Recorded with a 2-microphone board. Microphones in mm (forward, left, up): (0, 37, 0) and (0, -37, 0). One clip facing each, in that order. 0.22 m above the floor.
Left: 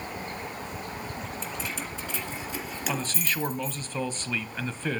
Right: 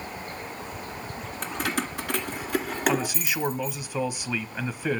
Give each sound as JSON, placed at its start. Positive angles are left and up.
{"t": 1.4, "sound": "keys jangling", "side_deg": -60, "distance_m": 1.8}
{"t": 2.9, "sound": "a man speaking", "side_deg": -10, "distance_m": 1.0}